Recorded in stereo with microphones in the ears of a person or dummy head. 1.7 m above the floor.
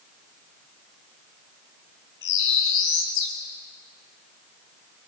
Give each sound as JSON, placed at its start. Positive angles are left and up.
{"t": 2.2, "sound": "a bird", "side_deg": 70, "distance_m": 5.0}